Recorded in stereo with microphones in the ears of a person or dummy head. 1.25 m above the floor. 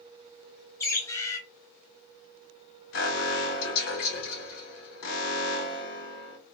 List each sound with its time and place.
0.8 s a bird: 15° left (ahead or behind), 0.8 m
2.9 s an alarm: 80° left, 2.5 m